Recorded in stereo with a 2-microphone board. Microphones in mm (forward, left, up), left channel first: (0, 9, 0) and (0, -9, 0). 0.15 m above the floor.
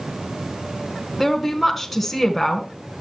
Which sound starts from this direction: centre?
A woman speaking, at 1.2 s.